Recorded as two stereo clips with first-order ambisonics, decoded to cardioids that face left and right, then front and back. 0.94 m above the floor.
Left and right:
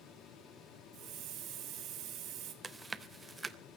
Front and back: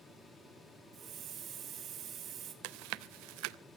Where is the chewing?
165° right, 0.6 m.